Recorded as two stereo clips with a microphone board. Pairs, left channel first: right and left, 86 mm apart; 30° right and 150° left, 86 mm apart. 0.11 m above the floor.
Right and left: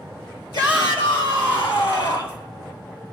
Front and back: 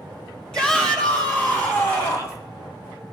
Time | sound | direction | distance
0.5 | a shout | 110° right | 3.5 m